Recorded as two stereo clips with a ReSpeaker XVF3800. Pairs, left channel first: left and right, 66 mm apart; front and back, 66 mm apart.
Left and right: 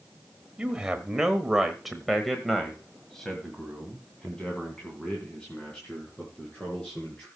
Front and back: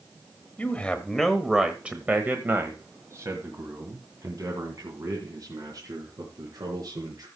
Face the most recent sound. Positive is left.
turn(degrees=165)